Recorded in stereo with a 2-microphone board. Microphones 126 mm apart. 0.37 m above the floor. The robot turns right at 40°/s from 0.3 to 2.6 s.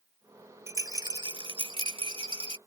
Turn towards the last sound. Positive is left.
turn(degrees=-70)